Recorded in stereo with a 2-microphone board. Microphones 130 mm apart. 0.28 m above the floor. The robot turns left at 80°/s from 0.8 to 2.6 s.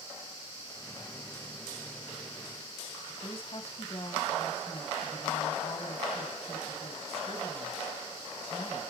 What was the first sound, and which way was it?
A woman speaking, 50° left (ahead or behind).